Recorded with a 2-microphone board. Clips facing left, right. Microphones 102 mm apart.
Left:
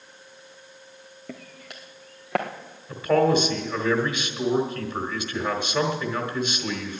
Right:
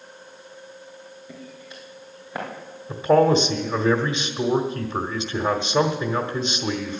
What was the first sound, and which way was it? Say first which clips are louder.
Footsteps: left 2 dB; 65° left (ahead or behind).